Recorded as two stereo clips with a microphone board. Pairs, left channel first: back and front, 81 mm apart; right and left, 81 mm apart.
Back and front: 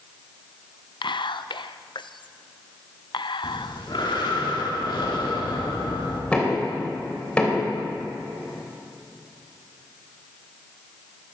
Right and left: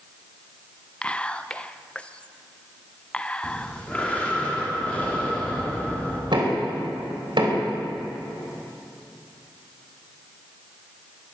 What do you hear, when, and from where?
1.0 s whispering: 165° right, 0.5 m
3.4 s breathing: 165° right, 2.5 m
6.3 s knocking: 105° left, 3.5 m